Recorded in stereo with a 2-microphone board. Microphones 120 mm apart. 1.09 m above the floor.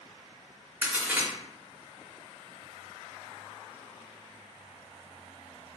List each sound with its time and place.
0.8 s a crack: 10° right (ahead or behind), 0.8 m